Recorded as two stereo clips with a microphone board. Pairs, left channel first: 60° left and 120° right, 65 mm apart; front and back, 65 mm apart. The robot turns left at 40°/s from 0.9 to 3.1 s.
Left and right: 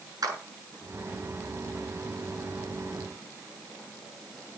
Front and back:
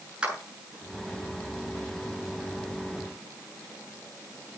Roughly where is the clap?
Right.